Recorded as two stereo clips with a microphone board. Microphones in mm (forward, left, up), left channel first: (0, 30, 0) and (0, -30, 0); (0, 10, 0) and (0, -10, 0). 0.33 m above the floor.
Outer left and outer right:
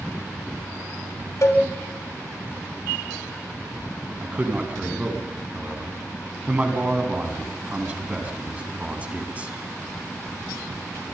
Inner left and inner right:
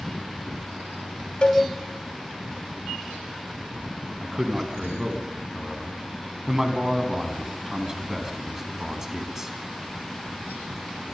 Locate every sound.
1.4 s a cowbell: 55° left (ahead or behind), 2 m
4.2 s a man speaking: 20° right (ahead or behind), 3 m